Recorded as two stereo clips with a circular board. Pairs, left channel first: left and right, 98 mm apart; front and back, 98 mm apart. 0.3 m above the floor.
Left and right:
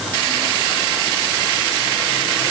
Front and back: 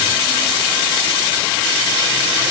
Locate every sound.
Only background noise.